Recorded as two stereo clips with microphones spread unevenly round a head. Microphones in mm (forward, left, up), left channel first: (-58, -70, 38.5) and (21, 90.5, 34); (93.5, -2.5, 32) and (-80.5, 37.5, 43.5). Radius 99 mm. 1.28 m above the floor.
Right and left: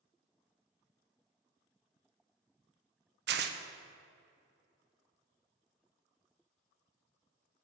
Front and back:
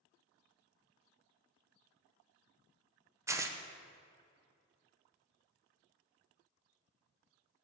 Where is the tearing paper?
90° left, 0.8 m.